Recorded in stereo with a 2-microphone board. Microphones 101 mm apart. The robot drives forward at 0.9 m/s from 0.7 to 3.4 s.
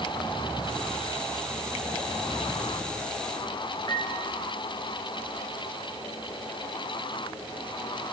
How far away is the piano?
About 1.0 m.